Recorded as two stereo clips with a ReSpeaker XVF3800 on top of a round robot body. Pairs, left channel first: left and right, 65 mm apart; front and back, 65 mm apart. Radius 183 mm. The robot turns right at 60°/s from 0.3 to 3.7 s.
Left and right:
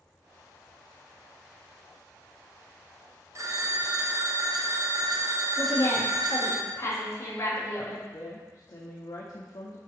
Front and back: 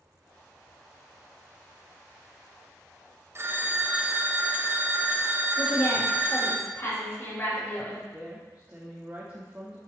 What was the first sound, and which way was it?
A phone ringing, 130° right.